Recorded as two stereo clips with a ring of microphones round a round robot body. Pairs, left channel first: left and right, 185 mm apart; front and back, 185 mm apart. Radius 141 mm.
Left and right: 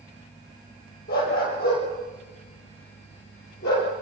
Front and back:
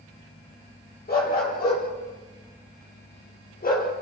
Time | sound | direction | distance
1.1 | a dog barking | 35° left | 6.5 m